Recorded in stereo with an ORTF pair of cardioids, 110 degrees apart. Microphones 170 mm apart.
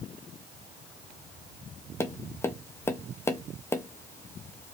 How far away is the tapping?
About 0.5 m.